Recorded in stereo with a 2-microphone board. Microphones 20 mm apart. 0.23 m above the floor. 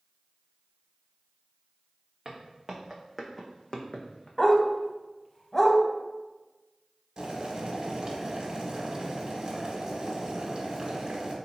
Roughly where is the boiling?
Right.